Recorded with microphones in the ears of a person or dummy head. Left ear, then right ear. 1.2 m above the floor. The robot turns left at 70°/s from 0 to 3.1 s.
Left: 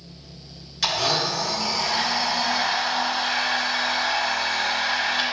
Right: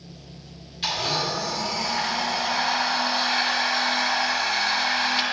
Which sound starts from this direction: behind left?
A blender, at 0.8 s.